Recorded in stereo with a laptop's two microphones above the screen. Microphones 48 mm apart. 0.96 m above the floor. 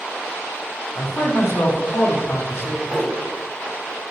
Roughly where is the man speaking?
Left.